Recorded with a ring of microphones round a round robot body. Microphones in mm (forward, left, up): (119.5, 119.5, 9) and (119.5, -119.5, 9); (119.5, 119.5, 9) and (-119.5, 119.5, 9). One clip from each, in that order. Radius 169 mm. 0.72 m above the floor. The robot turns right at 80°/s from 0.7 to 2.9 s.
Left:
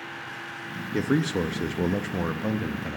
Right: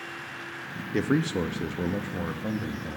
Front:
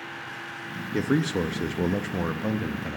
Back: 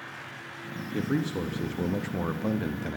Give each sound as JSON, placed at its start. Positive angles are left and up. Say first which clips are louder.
{"t": 0.9, "sound": "a man speaking", "louder": "left 1 dB, front 5 dB", "azimuth_deg": -20, "distance_m": 0.5}